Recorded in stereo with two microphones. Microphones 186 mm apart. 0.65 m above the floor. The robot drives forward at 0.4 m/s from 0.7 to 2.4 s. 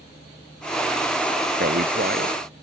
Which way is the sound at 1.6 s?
55° right (ahead or behind).